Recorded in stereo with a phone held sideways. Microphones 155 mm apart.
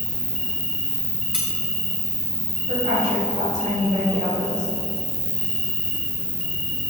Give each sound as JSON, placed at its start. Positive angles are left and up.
{"t": 0.0, "sound": "an insect", "side_deg": -65, "distance_m": 1.4}
{"t": 1.3, "sound": "cutlery clinking", "side_deg": -5, "distance_m": 3.0}
{"t": 2.7, "sound": "a woman speaking", "side_deg": -60, "distance_m": 4.0}